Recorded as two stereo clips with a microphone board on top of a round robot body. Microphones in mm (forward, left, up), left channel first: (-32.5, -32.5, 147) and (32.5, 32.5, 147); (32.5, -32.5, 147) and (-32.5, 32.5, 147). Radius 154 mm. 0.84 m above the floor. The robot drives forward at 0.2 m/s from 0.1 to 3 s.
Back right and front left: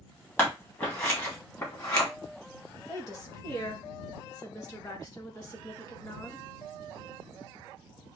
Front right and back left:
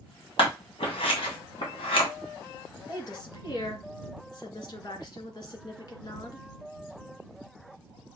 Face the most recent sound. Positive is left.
turn(degrees=-85)